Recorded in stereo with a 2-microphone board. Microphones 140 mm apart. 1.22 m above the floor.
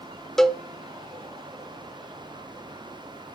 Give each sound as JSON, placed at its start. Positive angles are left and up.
{"t": 0.4, "sound": "a cowbell", "side_deg": 5, "distance_m": 0.7}